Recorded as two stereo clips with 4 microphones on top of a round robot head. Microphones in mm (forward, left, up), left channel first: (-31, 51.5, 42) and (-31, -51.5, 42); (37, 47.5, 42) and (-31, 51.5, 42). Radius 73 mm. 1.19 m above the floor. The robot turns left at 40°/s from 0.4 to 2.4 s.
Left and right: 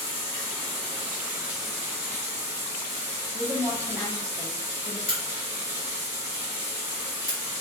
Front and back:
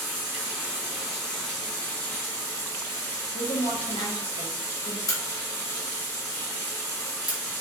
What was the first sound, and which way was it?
Running water, 40° left.